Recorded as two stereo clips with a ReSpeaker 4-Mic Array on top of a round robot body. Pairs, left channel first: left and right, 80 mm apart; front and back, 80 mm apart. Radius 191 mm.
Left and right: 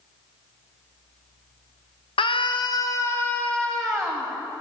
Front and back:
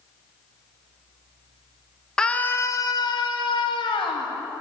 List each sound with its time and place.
2.2 s a scream: 80° left, 1.0 m; by 4.3 s straight ahead, 2.0 m